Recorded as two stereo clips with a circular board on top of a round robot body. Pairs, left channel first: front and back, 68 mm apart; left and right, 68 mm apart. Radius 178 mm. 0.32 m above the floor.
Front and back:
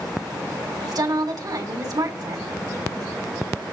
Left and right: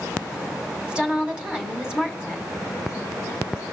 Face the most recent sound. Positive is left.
turn(degrees=-165)